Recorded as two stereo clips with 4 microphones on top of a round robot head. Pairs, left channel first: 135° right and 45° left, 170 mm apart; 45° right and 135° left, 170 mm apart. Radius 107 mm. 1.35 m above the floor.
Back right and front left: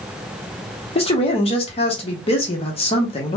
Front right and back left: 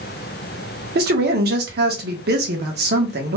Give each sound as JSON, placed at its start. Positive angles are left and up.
{"t": 0.9, "sound": "a man speaking", "azimuth_deg": 165, "distance_m": 1.0}